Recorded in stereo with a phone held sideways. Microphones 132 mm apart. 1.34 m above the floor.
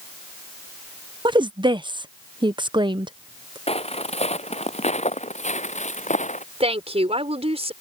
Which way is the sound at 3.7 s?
50° left (ahead or behind).